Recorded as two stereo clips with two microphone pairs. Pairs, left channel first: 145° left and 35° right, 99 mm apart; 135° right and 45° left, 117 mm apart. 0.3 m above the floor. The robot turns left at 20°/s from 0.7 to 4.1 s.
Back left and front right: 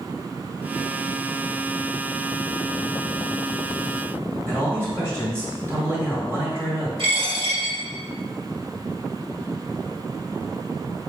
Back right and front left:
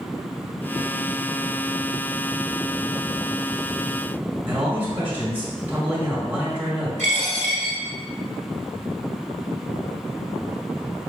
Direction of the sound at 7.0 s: 60° right.